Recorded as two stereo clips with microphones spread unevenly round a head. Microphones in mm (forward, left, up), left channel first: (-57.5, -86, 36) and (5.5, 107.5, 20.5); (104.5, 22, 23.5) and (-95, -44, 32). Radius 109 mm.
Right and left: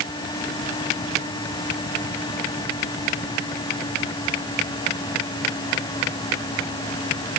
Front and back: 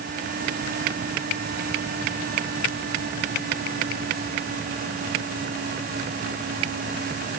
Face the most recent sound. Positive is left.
No sound to turn to.